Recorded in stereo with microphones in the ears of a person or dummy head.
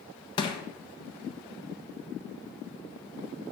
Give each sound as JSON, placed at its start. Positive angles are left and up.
{"t": 0.4, "sound": "crushing", "side_deg": 25, "distance_m": 1.3}